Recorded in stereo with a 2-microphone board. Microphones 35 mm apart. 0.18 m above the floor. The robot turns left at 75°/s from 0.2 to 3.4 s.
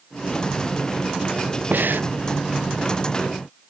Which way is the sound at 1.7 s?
65° right (ahead or behind).